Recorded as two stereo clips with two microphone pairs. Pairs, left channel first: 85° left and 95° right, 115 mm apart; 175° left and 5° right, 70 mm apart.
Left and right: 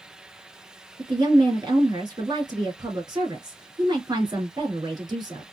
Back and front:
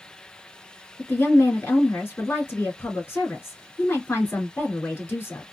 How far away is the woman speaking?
About 2 m.